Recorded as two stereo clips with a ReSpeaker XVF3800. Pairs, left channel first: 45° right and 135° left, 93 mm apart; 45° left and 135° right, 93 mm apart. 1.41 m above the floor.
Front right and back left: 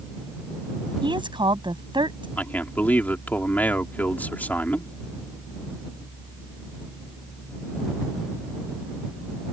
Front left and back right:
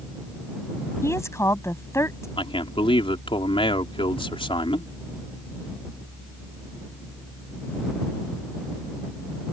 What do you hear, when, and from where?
1.0 s a woman speaking: 105° left
2.4 s a man speaking: 30° left